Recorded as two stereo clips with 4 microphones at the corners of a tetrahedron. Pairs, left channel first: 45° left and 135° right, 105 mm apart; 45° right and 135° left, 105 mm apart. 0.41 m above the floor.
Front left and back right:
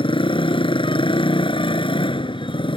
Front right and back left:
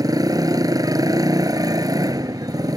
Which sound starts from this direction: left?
A motorcycle, at 0.0 s.